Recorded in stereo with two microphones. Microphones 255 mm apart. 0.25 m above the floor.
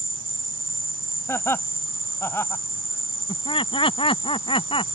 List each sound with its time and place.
0.0 s an insect: 75° right (ahead or behind)
1.3 s laughter: 10° left (ahead or behind)
3.3 s laughter: 20° left (ahead or behind)